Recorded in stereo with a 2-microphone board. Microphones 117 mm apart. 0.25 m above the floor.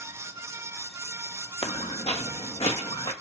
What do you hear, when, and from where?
1.6 s footsteps: 60° left (ahead or behind), 0.6 m; by 3.1 s 50° left (ahead or behind), 1.4 m